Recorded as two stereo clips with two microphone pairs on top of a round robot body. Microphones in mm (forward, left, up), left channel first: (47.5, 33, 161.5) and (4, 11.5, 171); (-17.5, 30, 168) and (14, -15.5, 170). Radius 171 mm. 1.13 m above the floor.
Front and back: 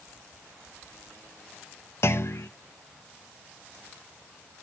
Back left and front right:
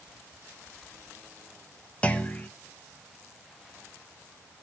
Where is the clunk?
55° left, 0.9 m.